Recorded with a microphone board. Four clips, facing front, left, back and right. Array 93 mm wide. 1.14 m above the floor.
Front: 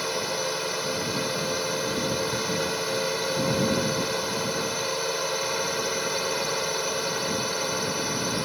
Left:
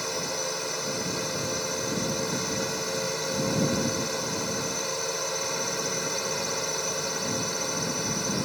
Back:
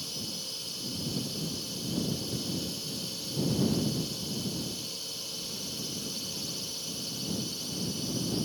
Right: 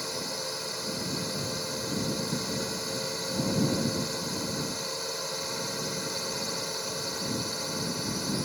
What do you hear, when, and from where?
0.0 s a drone: 15° left